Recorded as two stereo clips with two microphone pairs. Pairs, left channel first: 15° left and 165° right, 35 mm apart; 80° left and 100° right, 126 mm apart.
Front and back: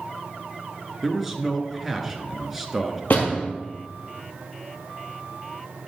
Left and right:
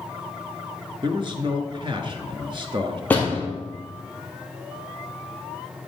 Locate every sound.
1.0 s a man speaking: 80° right, 1.3 m
3.1 s a door slam: 5° left, 2.5 m